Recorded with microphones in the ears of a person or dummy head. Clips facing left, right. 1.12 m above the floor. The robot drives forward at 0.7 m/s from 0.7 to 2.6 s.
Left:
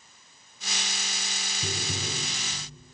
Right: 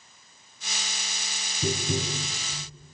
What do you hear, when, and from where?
1.6 s tapping: 75° right (ahead or behind), 3.5 m; by 2.6 s 70° right (ahead or behind), 3.5 m